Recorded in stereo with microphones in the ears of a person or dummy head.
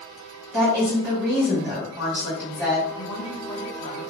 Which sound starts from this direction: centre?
A woman speaking, at 0.5 s.